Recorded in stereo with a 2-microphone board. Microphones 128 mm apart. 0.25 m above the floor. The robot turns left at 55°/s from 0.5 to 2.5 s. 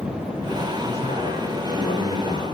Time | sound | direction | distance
0.8 | a man speaking | 125° left | 7.5 m